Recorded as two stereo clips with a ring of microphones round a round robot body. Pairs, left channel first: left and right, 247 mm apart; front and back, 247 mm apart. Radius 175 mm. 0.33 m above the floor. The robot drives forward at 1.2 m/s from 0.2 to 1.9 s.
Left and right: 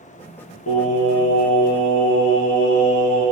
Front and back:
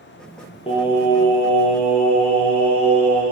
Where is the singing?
70° left, 5 m; by 3.2 s 85° left, 5 m.